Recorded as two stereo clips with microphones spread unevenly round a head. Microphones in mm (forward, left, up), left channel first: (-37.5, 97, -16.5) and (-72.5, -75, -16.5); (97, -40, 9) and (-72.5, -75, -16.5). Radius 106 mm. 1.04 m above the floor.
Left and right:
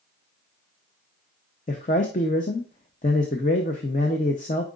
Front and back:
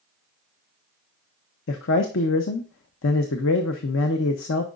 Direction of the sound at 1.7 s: 20° left.